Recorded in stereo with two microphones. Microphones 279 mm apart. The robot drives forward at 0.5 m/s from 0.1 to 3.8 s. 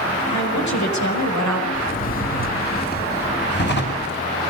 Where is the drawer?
30° left (ahead or behind), 4 m; by 4.1 s 40° left (ahead or behind), 3.5 m.